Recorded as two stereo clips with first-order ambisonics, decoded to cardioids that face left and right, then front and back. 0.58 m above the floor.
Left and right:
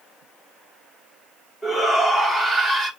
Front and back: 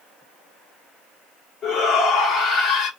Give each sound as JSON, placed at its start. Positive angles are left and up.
{"t": 1.6, "sound": "a shout", "azimuth_deg": 25, "distance_m": 1.3}